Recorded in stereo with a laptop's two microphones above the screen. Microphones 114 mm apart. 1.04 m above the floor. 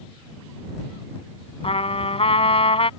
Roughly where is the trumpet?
Left.